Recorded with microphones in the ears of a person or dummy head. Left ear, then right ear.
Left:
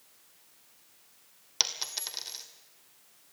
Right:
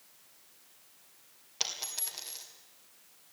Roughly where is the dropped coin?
Left.